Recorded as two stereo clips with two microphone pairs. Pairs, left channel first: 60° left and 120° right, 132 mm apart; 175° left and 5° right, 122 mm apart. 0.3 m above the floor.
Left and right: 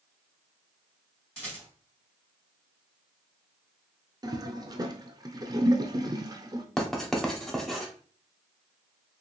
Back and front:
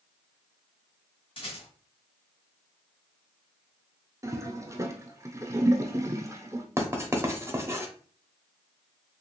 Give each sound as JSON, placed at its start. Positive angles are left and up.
{"t": 1.4, "sound": "a rattle", "azimuth_deg": 145, "distance_m": 1.9}
{"t": 4.2, "sound": "a toilet flushing", "azimuth_deg": -65, "distance_m": 0.5}
{"t": 6.8, "sound": "writing", "azimuth_deg": -30, "distance_m": 0.7}